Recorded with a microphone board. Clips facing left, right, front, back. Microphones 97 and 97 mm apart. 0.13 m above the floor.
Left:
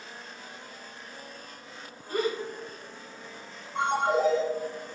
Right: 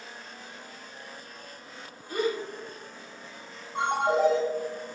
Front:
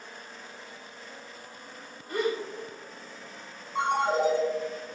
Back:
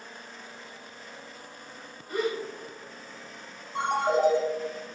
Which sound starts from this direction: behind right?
A ringtone, at 3.8 s.